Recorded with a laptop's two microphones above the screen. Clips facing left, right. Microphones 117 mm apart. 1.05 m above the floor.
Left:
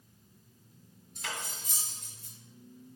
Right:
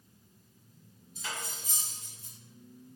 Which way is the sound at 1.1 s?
75° left (ahead or behind).